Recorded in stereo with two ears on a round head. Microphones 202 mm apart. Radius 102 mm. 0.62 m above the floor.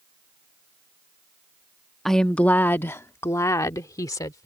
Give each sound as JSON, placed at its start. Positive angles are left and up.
{"t": 2.0, "sound": "a woman speaking", "side_deg": 0}